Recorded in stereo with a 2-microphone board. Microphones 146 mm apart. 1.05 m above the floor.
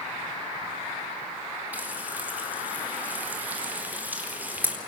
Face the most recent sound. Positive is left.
turn(degrees=-15)  # may be behind; listen again after turning